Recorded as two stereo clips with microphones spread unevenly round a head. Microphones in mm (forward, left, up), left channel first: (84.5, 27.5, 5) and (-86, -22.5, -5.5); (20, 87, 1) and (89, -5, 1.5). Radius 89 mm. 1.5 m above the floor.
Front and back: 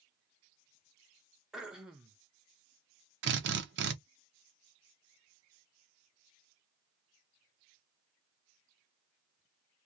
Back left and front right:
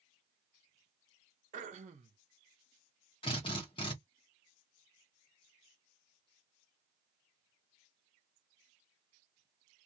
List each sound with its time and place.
1.5 s throat clearing: 80° right, 0.6 m
3.2 s a drill: straight behind, 0.7 m